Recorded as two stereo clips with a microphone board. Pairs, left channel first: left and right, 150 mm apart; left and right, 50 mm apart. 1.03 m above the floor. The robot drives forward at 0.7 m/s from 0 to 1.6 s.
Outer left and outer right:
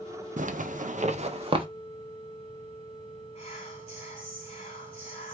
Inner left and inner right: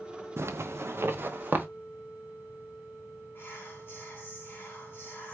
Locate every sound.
0.4 s a zipper: 55° right (ahead or behind), 0.7 m; by 1.6 s 35° right (ahead or behind), 0.9 m
3.4 s whispering: 40° left (ahead or behind), 3 m